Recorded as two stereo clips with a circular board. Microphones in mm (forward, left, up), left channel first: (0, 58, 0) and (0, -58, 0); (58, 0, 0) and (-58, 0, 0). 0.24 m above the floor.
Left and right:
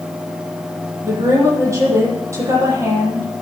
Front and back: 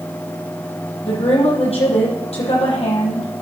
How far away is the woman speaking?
About 9 m.